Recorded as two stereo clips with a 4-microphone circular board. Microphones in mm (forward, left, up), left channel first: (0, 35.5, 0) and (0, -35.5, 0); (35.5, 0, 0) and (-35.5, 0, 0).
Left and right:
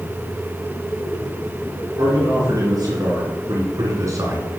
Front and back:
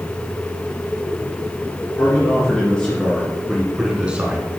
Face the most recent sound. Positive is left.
turn(degrees=-120)